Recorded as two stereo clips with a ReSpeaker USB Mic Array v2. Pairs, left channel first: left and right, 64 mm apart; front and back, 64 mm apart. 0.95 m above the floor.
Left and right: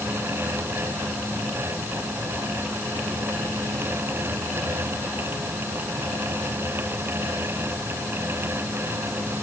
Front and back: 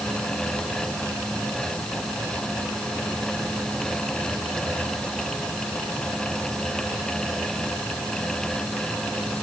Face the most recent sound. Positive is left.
No sound to turn to.